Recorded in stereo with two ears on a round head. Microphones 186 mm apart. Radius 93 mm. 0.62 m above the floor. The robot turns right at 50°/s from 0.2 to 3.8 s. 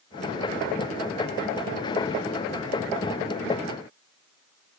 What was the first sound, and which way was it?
Only background noise.